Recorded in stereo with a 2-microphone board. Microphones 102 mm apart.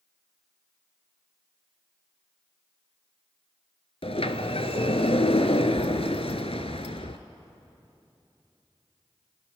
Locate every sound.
4.0 s a sliding door: 75° left (ahead or behind), 1.0 m